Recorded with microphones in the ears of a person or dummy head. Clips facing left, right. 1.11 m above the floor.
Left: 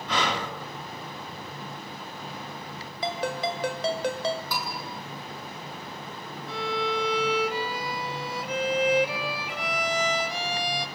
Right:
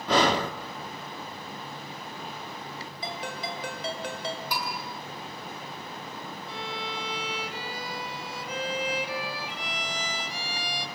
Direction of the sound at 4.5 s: 10° right (ahead or behind).